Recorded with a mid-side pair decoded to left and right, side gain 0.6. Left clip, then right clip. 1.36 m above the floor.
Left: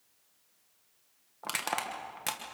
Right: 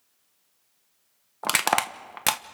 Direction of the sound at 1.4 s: 50° right.